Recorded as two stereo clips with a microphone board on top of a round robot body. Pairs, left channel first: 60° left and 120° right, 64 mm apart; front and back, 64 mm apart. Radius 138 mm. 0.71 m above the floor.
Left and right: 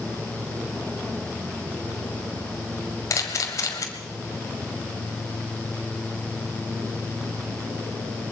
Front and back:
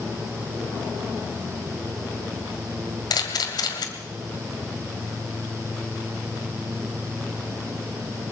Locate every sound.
3.1 s a camera shutter: 15° left, 1.6 m